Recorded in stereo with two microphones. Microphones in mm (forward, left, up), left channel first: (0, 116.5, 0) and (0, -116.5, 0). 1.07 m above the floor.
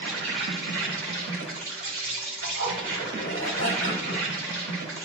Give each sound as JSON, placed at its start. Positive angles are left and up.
{"t": 0.0, "sound": "an insect", "side_deg": -60, "distance_m": 1.5}
{"t": 2.4, "sound": "a zipper", "side_deg": 70, "distance_m": 1.2}